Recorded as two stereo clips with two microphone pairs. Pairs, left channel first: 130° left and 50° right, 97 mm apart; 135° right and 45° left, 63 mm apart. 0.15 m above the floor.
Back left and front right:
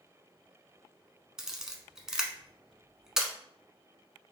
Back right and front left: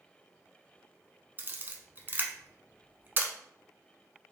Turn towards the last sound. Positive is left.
turn(degrees=35)